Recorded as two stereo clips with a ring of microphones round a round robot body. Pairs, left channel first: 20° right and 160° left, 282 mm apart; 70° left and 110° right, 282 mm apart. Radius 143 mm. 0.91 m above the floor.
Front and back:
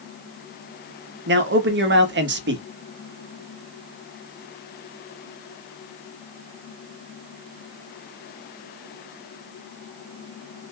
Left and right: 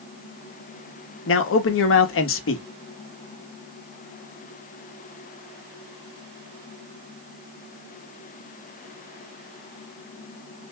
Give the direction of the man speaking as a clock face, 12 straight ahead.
8 o'clock.